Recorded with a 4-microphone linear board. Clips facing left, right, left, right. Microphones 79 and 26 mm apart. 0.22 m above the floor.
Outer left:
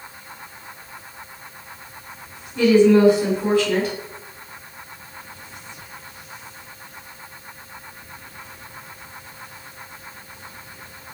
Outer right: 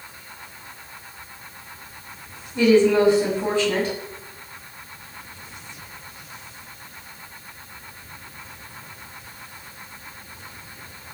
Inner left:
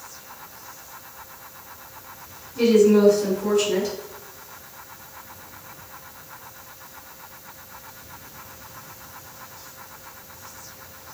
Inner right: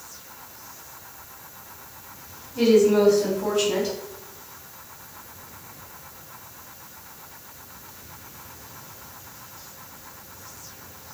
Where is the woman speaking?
30° right (ahead or behind), 1.4 m.